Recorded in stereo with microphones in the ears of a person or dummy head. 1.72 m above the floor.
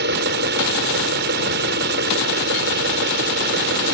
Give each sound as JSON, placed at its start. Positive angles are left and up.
{"t": 0.0, "sound": "an engine running", "side_deg": -60}